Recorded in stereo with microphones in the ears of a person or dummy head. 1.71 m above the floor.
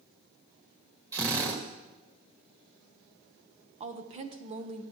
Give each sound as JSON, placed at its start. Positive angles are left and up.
{"t": 1.1, "sound": "a drill", "side_deg": -15, "distance_m": 1.9}
{"t": 3.8, "sound": "a woman speaking", "side_deg": -30, "distance_m": 1.0}